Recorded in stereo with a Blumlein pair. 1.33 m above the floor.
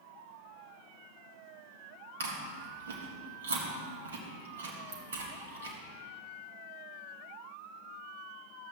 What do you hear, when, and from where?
2.2 s chewing: 65° right, 1.6 m